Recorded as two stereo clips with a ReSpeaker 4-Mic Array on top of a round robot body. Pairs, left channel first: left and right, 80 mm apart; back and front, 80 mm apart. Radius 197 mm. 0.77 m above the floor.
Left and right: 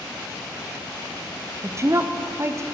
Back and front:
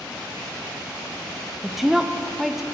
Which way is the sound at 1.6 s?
85° right.